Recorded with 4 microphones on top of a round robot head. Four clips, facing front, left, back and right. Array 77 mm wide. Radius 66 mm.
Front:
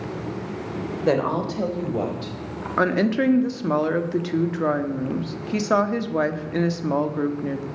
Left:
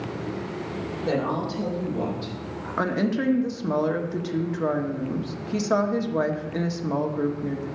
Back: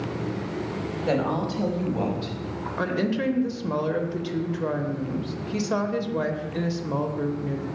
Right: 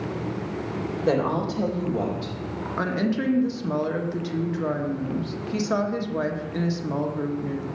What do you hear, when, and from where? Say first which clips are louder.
1.1 s a woman speaking: right 3 dB, front 4 dB; 20° right, 3.5 m
2.8 s a woman speaking: left 1 dB, front 6 dB; 20° left, 1.4 m